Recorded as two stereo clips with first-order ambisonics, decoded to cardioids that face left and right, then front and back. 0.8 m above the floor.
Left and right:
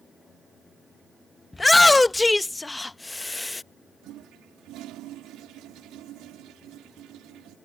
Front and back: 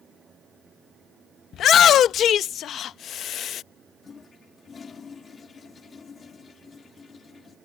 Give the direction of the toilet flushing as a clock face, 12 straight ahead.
2 o'clock.